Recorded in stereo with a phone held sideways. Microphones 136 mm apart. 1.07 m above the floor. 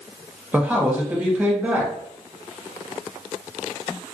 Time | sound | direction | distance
0.5 | a man speaking | 10° right (ahead or behind) | 0.8 m